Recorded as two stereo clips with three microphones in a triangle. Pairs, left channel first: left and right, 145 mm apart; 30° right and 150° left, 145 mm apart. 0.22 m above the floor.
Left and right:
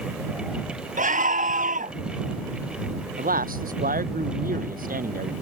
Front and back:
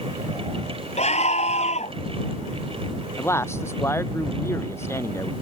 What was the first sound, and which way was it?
A scream, 70° right.